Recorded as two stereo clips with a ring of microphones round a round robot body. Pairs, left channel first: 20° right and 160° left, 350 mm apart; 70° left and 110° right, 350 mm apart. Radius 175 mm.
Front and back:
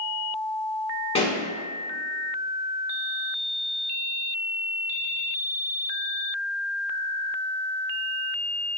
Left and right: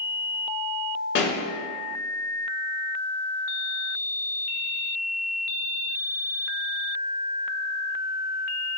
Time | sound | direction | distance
1.1 | a pop | 40° left | 1.0 m